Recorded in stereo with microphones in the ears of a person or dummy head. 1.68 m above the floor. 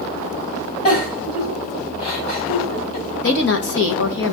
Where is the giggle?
40° left (ahead or behind), 5 m.